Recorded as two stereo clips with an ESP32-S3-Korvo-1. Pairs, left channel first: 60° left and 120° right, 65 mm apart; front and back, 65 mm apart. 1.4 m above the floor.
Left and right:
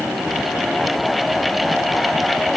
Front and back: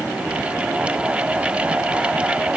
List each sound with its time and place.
Only background noise.